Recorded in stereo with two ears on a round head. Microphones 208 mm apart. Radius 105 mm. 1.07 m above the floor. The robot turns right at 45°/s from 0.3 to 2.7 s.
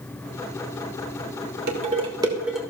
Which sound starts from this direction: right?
Dishes clattering, at 1.7 s.